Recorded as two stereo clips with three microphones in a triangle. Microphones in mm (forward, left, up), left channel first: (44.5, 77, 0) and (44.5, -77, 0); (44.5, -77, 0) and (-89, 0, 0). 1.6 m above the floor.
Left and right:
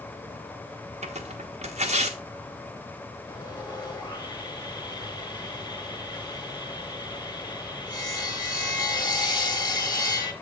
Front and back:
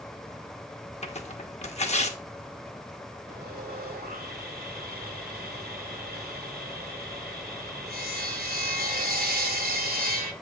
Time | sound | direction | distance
1.0 | tearing paper | 60° right | 1.0 m
3.3 | sawing | 155° left | 1.6 m